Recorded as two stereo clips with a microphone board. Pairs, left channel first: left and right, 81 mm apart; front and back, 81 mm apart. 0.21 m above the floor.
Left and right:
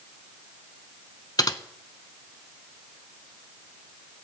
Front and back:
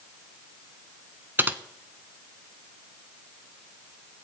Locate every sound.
1.4 s typing on a keyboard: 120° left, 0.6 m